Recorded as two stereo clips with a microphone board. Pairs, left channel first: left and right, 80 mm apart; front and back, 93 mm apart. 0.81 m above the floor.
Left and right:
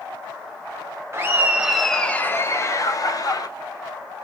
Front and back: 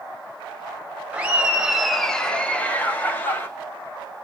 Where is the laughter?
115° right, 0.7 m; by 3.5 s 65° left, 1.1 m.